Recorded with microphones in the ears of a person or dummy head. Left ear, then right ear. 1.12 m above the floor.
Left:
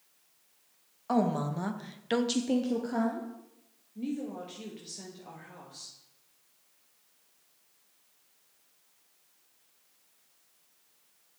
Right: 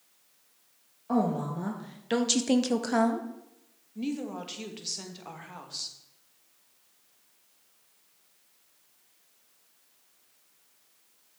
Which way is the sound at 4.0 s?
35° right (ahead or behind).